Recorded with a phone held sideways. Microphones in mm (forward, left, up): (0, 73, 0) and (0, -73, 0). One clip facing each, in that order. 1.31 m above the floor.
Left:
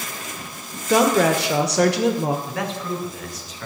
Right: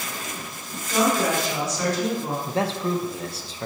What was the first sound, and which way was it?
A woman speaking, 75° left (ahead or behind).